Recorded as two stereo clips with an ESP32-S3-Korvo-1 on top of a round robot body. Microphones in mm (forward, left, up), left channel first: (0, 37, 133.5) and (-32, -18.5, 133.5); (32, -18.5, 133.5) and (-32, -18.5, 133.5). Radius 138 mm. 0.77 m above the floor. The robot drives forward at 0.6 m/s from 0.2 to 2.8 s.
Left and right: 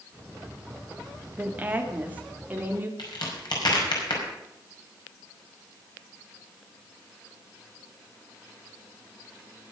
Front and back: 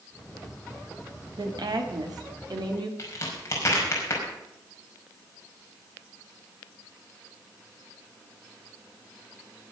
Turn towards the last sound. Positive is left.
turn(degrees=50)